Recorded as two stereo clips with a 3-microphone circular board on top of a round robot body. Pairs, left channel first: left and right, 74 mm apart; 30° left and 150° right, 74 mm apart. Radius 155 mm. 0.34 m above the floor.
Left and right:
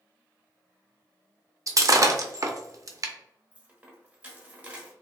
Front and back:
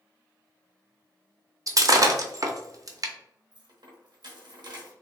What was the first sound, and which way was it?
Breaking glass, 120° right.